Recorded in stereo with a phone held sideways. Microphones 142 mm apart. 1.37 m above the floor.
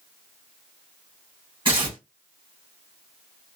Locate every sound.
1.6 s tearing paper: 30° right (ahead or behind), 1.2 m